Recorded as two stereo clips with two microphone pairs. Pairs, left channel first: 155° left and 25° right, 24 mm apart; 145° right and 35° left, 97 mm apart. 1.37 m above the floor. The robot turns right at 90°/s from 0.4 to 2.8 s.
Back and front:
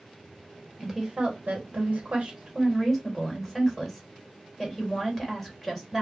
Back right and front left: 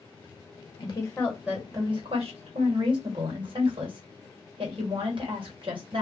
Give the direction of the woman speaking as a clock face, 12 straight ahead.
4 o'clock.